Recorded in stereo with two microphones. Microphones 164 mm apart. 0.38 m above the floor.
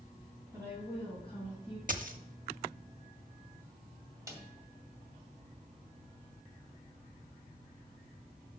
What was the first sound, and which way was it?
A woman speaking, 15° right (ahead or behind).